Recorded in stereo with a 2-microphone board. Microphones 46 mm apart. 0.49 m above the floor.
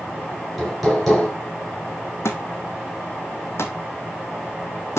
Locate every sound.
0.3 s hammering: centre (ahead or behind), 4.5 m
2.2 s a thud: 70° left (ahead or behind), 2 m